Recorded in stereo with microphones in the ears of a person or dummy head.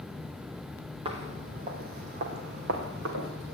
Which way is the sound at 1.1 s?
25° right (ahead or behind).